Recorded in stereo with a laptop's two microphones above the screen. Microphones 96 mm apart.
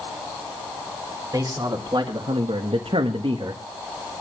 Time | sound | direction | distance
1.3 | a man speaking | 35° right (ahead or behind) | 3 m